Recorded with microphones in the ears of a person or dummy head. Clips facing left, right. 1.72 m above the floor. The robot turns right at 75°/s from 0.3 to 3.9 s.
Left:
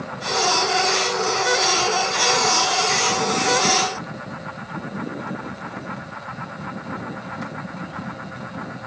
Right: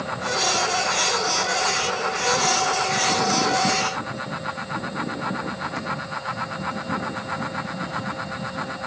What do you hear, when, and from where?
Only background noise.